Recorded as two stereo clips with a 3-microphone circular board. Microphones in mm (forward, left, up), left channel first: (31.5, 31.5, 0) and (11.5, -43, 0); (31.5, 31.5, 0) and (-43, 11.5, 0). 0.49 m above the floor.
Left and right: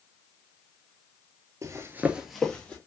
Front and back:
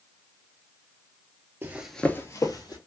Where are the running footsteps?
115° right, 0.6 m; by 2.8 s 5° left, 1.0 m.